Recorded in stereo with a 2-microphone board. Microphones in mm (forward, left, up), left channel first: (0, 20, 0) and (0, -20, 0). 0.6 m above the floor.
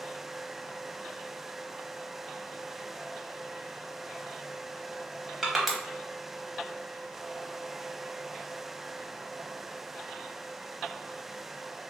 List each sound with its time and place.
5.4 s crushing: 5° right (ahead or behind), 0.6 m